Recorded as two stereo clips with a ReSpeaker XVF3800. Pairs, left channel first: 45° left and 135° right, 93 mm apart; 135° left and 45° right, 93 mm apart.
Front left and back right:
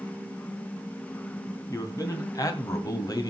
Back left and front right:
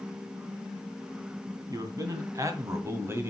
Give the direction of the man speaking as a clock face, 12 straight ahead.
12 o'clock.